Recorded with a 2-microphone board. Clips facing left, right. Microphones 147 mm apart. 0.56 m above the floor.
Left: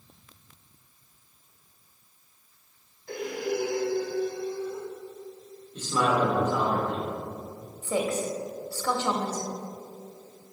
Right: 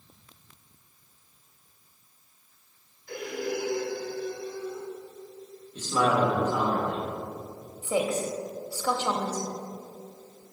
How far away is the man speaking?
About 1.5 m.